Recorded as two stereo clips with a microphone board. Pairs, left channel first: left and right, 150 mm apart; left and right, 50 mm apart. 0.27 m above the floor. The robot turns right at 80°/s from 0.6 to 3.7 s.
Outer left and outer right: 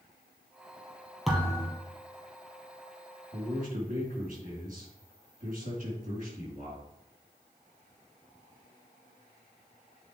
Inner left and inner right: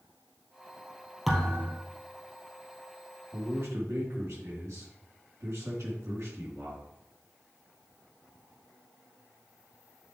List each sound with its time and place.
1.3 s a thud: straight ahead, 2.5 m; by 1.8 s 40° left, 2.5 m
3.3 s a man speaking: 125° right, 3.5 m; by 6.8 s 95° right, 3.5 m